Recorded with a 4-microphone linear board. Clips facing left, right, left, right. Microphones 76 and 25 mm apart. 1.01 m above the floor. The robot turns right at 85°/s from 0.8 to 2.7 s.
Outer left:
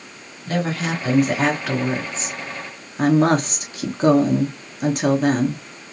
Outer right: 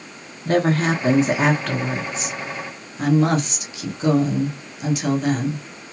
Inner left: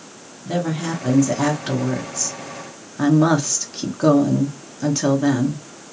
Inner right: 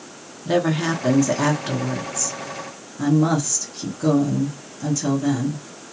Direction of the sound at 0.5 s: 70° right.